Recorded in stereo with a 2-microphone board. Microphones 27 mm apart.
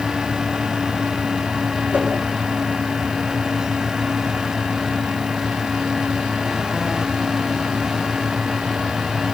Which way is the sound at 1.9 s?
60° right (ahead or behind).